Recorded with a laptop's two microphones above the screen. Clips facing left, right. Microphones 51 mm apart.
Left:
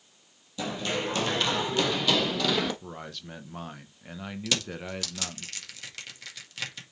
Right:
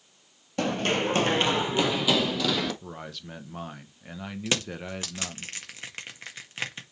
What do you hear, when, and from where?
0.6 s running footsteps: 55° right (ahead or behind), 1.6 m; by 2.7 s 5° left (ahead or behind), 2 m
2.8 s a man speaking: centre (ahead or behind), 0.8 m
4.5 s crushing: 30° right (ahead or behind), 1.8 m